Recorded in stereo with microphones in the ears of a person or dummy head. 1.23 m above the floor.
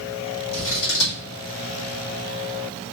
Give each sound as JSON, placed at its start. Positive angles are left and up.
{"t": 0.5, "sound": "scissors", "side_deg": 65, "distance_m": 1.7}